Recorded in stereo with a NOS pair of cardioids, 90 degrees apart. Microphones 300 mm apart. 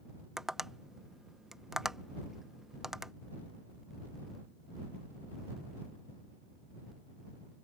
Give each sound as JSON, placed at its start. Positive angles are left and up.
{"t": 0.4, "sound": "tapping", "azimuth_deg": 0}